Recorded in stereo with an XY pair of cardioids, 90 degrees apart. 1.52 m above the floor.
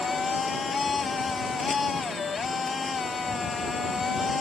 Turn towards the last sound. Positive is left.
turn(degrees=45)